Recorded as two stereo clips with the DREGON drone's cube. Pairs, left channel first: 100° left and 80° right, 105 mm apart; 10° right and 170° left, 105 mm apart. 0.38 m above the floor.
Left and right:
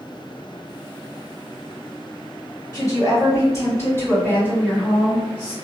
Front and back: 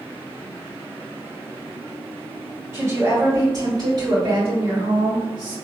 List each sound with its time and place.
2.7 s a woman speaking: 120° left, 1.5 m; by 5.5 s straight behind, 2 m